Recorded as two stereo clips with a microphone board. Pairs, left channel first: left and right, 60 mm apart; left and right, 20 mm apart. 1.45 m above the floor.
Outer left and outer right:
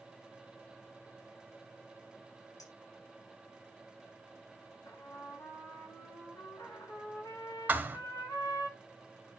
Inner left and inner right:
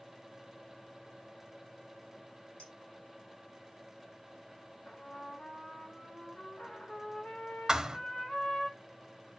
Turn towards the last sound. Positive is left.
turn(degrees=-25)  # may be behind; listen again after turning